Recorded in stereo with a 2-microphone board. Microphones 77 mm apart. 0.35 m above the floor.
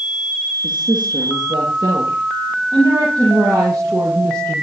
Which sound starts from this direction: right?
A woman speaking, at 0.6 s.